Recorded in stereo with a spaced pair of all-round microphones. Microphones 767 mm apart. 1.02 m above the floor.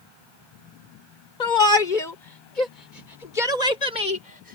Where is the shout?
85° left; by 4.6 s 70° left (ahead or behind).